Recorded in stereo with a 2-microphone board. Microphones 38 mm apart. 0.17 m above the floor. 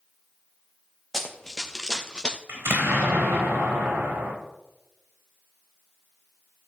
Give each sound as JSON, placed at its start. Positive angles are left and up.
{"t": 1.1, "sound": "running footsteps", "side_deg": 5, "distance_m": 1.8}
{"t": 2.5, "sound": "an explosion", "side_deg": -85, "distance_m": 4.0}